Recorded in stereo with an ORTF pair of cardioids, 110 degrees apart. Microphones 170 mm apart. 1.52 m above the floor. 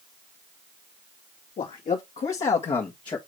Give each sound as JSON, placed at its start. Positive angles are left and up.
{"t": 1.6, "sound": "a man speaking", "azimuth_deg": 50, "distance_m": 2.0}